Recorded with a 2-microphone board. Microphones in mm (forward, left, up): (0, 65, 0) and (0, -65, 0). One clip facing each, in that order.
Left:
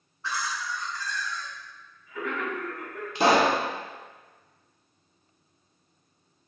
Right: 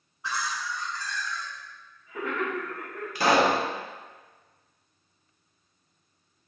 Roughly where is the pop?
Left.